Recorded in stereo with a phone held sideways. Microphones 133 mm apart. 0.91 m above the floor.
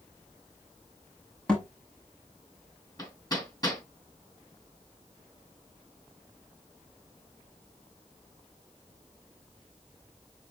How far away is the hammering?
About 3.5 m.